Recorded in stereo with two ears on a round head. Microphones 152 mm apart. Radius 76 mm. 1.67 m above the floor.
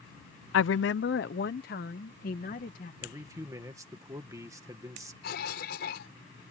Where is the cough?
65° left (ahead or behind).